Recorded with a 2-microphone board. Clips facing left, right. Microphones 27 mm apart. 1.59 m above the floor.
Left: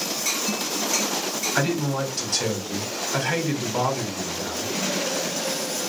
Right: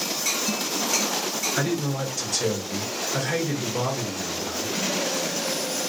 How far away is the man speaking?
About 1.2 m.